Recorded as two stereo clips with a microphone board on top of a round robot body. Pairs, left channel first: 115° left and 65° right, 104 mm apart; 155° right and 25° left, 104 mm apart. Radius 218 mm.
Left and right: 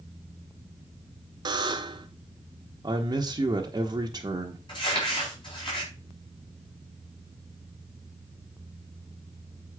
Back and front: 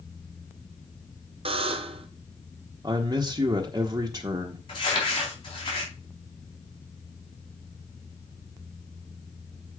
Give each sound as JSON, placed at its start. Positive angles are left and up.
{"t": 1.4, "sound": "a buzzer", "azimuth_deg": -15, "distance_m": 0.6}
{"t": 2.8, "sound": "a man speaking", "azimuth_deg": -25, "distance_m": 1.1}
{"t": 4.7, "sound": "crumpling", "azimuth_deg": 160, "distance_m": 4.0}